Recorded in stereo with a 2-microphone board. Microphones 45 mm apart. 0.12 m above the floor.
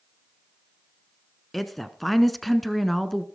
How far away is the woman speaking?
About 1.2 m.